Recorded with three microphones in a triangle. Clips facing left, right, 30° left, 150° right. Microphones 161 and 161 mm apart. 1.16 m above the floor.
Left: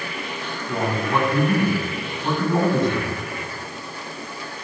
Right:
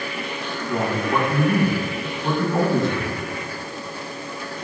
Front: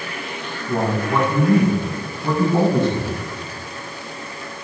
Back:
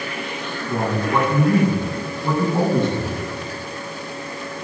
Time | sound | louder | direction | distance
0.7 | a man speaking | right 1 dB, front 1 dB | 5° right | 7 m